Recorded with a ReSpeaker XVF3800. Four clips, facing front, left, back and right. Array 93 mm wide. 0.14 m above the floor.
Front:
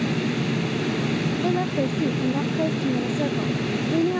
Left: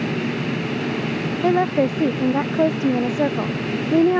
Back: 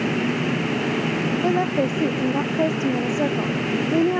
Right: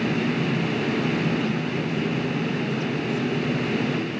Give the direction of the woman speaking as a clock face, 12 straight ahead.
8 o'clock.